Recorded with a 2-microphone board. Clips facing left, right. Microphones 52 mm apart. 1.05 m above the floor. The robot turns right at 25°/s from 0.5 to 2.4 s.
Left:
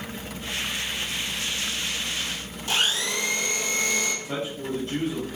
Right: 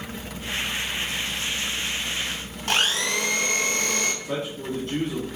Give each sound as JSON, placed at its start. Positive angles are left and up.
{"t": 2.7, "sound": "a blender", "side_deg": -55, "distance_m": 0.5}
{"t": 4.2, "sound": "a man speaking", "side_deg": -45, "distance_m": 1.2}